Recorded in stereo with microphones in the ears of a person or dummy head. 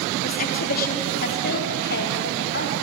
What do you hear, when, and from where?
0.2 s a woman speaking: 45° left (ahead or behind), 3 m; by 2.7 s 60° left (ahead or behind), 4.5 m